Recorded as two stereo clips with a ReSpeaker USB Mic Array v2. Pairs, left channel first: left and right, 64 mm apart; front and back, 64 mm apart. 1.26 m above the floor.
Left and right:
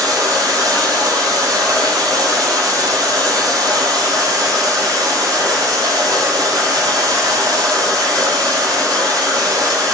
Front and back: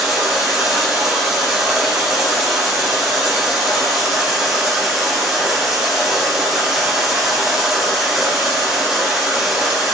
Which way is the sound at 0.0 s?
100° right.